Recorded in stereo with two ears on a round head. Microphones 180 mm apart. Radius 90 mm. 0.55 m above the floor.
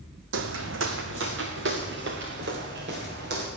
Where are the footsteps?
65° right (ahead or behind), 1.3 m; by 3.5 s 55° right (ahead or behind), 5 m.